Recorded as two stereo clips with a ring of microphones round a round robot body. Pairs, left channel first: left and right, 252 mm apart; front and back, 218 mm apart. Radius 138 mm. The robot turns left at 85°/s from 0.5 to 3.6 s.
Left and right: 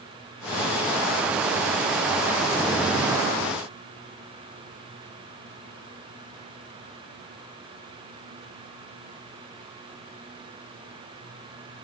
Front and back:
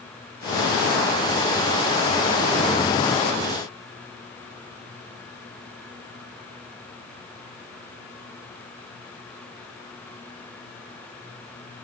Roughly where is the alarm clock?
I don't hear an alarm clock.